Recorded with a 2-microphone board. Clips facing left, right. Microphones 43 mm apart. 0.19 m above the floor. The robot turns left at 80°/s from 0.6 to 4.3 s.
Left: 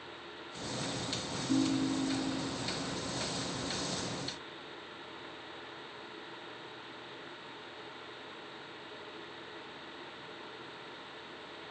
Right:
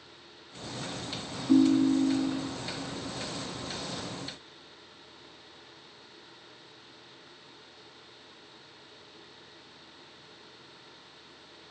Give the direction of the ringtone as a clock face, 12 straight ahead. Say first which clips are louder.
Right 9 dB; 2 o'clock.